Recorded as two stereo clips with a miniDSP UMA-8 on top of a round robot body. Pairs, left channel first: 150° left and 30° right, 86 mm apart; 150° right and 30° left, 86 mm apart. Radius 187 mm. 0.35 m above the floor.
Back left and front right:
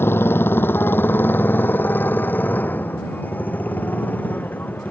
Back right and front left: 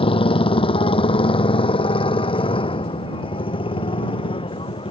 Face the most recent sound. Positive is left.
turn(degrees=-140)